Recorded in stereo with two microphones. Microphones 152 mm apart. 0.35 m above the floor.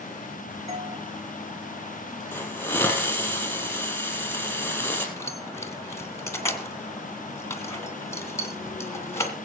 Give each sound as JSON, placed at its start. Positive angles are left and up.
{"t": 0.7, "sound": "a doorbell", "side_deg": -40, "distance_m": 2.5}
{"t": 2.3, "sound": "a hiss", "side_deg": 10, "distance_m": 4.0}
{"t": 5.2, "sound": "keys jangling", "side_deg": 20, "distance_m": 2.0}